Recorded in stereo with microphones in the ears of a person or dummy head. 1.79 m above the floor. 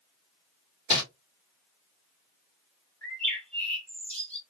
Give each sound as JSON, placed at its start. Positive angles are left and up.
{"t": 0.9, "sound": "crumpling", "side_deg": 35, "distance_m": 2.5}
{"t": 3.0, "sound": "a bird", "side_deg": 10, "distance_m": 2.0}